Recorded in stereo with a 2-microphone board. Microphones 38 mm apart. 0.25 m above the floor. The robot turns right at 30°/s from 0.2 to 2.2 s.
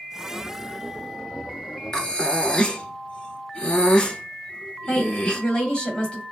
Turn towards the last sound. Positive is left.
turn(degrees=30)  # may be behind; listen again after turning